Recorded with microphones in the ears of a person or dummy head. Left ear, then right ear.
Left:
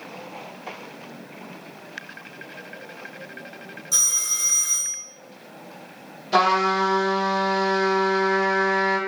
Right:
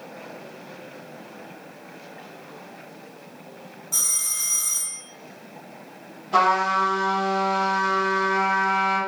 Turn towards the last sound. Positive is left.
turn(degrees=40)  # may be behind; listen again after turning